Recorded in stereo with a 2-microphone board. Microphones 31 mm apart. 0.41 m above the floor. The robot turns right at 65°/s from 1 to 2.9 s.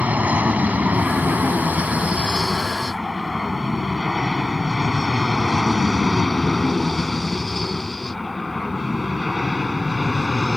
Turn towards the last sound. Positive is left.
turn(degrees=5)  # may be behind; listen again after turning